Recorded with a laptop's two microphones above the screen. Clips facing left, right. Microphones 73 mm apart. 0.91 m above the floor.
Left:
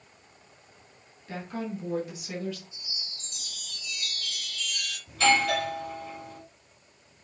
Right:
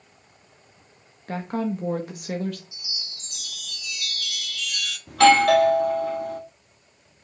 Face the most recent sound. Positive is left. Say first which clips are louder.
# right 9 dB
turn(degrees=-70)  # may be behind; listen again after turning